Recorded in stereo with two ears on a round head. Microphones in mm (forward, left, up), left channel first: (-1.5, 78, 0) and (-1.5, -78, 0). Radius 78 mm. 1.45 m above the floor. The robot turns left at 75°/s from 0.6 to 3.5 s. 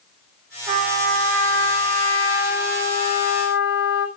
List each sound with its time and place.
0.7 s a trumpet: 35° right, 5 m; by 4.1 s 110° left, 5 m